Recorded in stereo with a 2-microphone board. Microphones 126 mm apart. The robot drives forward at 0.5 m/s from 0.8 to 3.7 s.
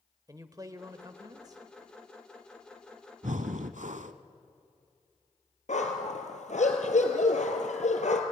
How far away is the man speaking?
About 0.9 m.